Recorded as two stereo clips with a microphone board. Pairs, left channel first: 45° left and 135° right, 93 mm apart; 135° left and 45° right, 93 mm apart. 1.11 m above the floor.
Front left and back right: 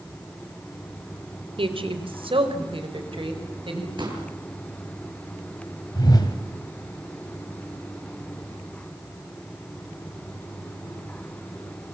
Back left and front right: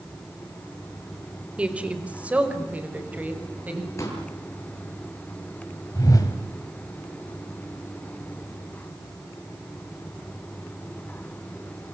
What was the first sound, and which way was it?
A woman speaking, 120° right.